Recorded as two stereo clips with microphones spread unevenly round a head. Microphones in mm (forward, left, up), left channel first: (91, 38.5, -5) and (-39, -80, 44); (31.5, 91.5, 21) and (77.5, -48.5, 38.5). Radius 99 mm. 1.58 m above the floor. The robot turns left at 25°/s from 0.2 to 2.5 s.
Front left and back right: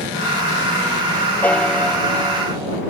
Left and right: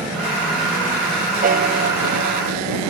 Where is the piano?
40° right; by 2.8 s 65° right.